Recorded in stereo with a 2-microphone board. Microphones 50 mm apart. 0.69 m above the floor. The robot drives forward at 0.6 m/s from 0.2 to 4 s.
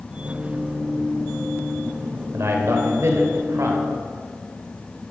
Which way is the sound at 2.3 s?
65° right (ahead or behind).